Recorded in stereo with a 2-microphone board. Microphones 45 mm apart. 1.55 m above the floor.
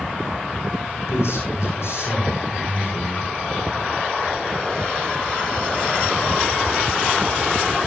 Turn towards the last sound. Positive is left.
turn(degrees=85)